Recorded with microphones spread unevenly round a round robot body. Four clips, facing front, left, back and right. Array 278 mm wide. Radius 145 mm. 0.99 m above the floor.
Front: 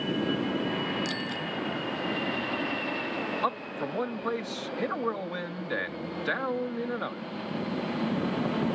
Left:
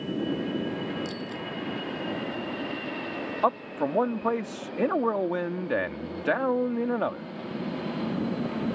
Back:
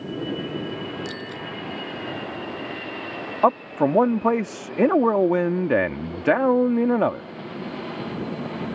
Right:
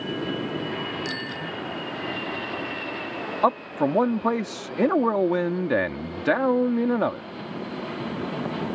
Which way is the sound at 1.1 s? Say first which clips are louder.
Right 2 dB, even; 90° right.